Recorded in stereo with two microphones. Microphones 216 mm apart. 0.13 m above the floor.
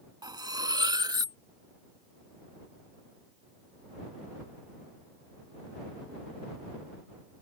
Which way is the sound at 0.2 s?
20° right (ahead or behind).